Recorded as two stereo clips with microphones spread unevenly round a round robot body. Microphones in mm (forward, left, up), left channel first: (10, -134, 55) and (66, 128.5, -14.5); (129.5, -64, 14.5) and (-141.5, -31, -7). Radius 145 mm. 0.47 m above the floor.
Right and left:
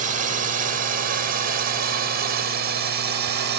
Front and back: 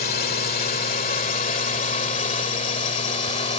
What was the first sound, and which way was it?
A drone, 45° left.